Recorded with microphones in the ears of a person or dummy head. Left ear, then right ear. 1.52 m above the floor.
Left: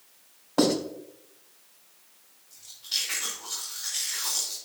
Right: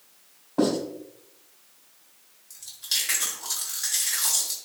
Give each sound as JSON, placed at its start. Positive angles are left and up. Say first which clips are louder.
{"t": 0.6, "sound": "writing", "louder": "left 1 dB", "side_deg": 75, "distance_m": 3.5}
{"t": 2.5, "sound": "chewing", "louder": "right 3 dB", "side_deg": -60, "distance_m": 3.5}